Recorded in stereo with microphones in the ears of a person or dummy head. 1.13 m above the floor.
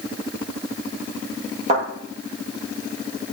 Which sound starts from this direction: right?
A thud, at 1.7 s.